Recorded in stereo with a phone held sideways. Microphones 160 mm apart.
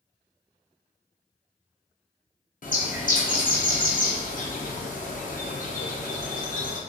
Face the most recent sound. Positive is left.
turn(degrees=55)  # may be behind; listen again after turning